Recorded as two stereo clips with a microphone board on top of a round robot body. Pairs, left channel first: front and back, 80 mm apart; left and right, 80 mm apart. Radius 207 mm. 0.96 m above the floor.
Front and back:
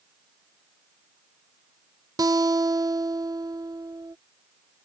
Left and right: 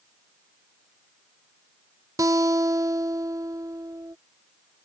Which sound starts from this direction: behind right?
A guitar, at 2.2 s.